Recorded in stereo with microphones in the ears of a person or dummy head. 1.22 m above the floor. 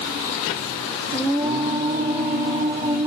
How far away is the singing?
About 2 m.